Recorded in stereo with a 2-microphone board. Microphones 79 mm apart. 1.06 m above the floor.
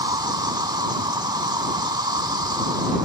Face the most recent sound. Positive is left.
turn(degrees=-60)  # may be behind; listen again after turning